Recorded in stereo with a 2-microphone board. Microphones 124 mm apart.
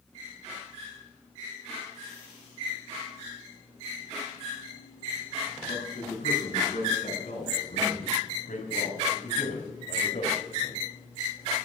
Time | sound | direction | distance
5.7 | a man speaking | 70° left (ahead or behind) | 8.5 m